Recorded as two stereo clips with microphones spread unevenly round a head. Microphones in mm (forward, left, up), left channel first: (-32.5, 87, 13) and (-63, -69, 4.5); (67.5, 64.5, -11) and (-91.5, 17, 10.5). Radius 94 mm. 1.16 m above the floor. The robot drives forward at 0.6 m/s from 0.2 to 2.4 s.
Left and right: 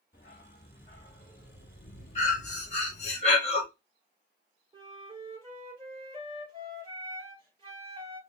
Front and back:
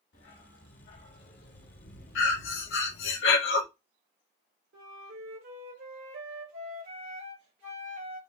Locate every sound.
0.1 s a dog barking: 20° left, 1.8 m; by 3.1 s 65° left, 0.8 m
2.1 s breathing: 20° left, 1.2 m
4.7 s a flute: 160° right, 3 m